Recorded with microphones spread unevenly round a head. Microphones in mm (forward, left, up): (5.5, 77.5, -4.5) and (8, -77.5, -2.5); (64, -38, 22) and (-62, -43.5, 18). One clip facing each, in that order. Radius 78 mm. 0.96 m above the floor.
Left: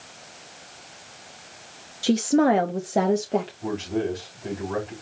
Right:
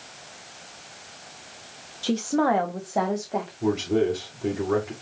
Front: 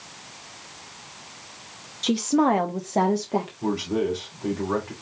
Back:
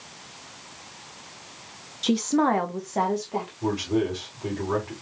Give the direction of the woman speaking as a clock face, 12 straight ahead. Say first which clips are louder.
Left 4 dB, front 1 dB; 8 o'clock.